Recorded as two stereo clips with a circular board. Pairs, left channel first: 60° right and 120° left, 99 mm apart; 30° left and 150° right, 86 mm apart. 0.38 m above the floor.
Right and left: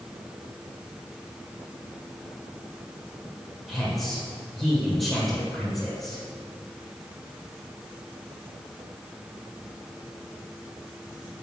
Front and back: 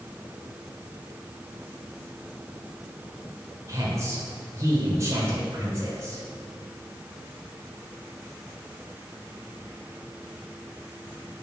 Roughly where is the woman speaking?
Behind right.